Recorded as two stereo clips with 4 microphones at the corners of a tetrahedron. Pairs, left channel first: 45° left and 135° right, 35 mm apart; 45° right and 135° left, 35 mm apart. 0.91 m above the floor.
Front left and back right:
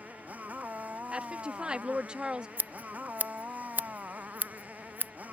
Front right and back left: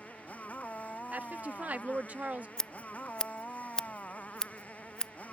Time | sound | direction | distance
0.0 | a motorcycle | 95° right | ?
1.1 | a woman speaking | 170° left | ?
2.6 | scissors | 115° right | ?